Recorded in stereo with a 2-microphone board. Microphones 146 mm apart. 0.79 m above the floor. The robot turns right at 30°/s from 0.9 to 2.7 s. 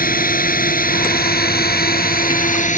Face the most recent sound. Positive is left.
turn(degrees=55)  # may be behind; listen again after turning